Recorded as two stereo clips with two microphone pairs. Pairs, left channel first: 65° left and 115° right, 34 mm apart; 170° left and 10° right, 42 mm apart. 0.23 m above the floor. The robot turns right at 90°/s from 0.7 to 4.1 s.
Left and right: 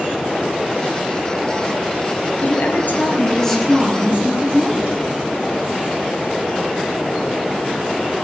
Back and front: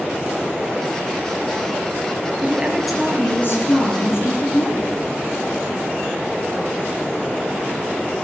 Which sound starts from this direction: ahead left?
A woman speaking, at 2.4 s.